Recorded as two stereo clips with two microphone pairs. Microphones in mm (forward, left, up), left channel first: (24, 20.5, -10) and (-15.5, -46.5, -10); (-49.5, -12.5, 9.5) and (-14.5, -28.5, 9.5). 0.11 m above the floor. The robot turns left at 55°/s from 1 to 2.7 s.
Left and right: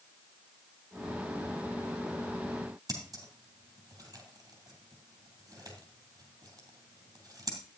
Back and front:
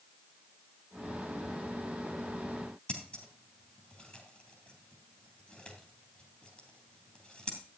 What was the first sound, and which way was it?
Scissors, 150° right.